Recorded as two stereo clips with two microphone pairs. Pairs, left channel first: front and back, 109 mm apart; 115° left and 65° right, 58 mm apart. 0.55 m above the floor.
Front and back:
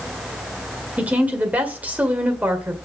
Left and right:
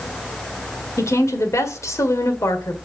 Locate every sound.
1.0 s a woman speaking: 105° left, 1.9 m